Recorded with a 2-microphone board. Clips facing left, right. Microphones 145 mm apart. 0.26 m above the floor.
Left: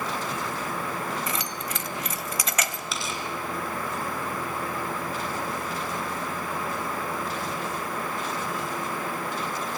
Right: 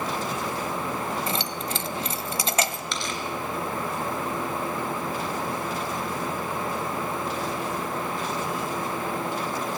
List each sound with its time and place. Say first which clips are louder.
1.3 s keys jangling: right 3 dB; 30° right (ahead or behind), 0.8 m
2.9 s tearing paper: right 1 dB; 5° left (ahead or behind), 2.5 m